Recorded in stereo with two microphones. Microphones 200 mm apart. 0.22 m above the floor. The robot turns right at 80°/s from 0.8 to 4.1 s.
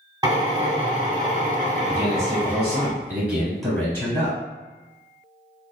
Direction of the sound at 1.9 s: 15° right (ahead or behind).